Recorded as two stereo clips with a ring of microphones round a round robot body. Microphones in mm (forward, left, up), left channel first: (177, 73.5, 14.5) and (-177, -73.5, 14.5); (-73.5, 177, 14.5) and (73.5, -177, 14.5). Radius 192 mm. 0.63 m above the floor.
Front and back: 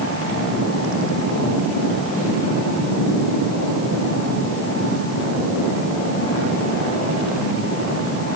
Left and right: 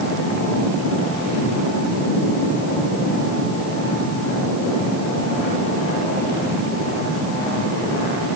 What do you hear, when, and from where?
Only background noise.